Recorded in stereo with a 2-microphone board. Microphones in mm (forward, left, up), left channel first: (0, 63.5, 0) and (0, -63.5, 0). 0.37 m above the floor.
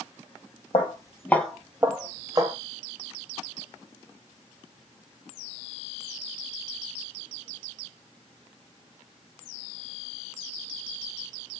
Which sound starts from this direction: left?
Footsteps, at 0.7 s.